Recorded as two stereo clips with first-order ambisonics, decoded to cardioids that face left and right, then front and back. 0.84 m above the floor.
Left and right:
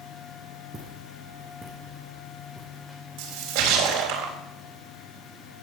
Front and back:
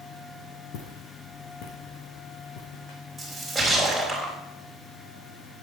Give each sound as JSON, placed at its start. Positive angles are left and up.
{"t": 0.7, "sound": "footsteps", "azimuth_deg": -20, "distance_m": 4.0}
{"t": 3.2, "sound": "a splash", "azimuth_deg": -90, "distance_m": 4.0}